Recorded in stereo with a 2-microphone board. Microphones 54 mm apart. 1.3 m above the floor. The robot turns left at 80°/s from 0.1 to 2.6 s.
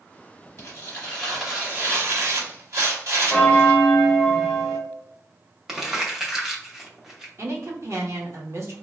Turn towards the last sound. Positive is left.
turn(degrees=-55)  # may be behind; listen again after turning